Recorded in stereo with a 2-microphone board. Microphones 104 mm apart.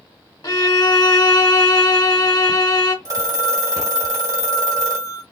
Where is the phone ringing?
35° right (ahead or behind), 1.1 m.